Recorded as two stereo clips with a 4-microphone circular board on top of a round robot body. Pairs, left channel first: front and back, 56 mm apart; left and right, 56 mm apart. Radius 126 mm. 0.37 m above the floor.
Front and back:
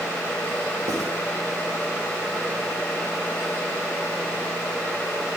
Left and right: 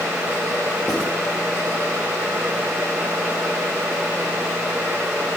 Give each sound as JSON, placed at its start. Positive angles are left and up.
{"t": 0.9, "sound": "writing", "azimuth_deg": 170, "distance_m": 5.0}